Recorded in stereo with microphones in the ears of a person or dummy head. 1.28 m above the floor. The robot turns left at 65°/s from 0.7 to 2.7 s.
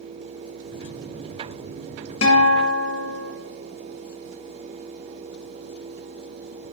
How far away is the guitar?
About 1.3 m.